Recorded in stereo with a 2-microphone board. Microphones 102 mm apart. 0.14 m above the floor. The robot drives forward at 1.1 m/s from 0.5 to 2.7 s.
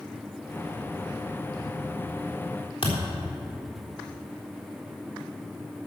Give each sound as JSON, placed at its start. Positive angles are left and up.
{"t": 2.8, "sound": "a thud", "side_deg": 75, "distance_m": 4.0}